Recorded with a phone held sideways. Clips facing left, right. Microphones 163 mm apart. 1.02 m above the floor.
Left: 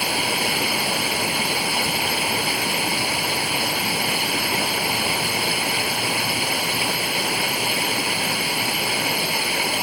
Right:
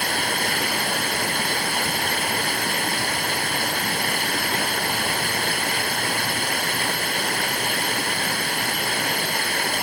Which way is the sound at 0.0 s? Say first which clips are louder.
Left 1 dB; 10° left (ahead or behind).